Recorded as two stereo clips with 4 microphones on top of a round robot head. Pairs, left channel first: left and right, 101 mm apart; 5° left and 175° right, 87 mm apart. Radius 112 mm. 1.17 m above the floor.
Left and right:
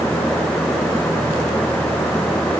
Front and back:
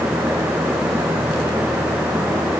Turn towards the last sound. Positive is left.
No sound to turn to.